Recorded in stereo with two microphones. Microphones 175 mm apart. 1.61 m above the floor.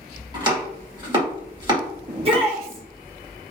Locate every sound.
0.3 s chopping: 25° right (ahead or behind), 1.9 m
2.1 s a shout: 35° right (ahead or behind), 0.8 m